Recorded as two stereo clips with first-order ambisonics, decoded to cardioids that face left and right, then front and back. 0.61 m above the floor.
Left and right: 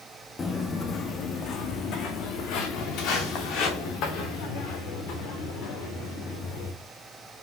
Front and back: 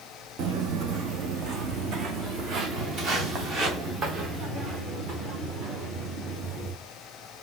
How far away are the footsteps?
About 1.0 m.